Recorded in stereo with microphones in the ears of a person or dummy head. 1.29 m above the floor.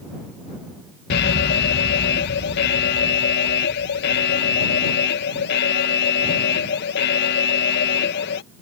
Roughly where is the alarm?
Left.